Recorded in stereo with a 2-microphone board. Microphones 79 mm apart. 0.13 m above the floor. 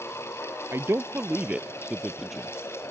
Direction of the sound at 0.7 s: 35° right (ahead or behind).